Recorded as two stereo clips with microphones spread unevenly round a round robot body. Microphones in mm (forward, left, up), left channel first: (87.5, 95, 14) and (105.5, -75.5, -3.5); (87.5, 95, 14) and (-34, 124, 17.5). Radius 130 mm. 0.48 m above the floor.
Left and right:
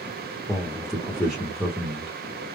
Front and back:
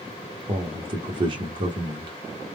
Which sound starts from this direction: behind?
A man speaking, at 0.5 s.